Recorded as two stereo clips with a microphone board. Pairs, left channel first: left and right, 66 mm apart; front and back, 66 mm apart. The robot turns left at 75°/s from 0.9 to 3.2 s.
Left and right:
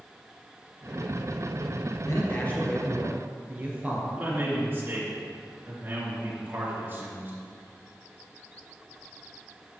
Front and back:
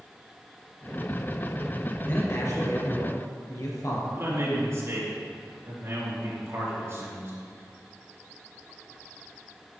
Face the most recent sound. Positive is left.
turn(degrees=-145)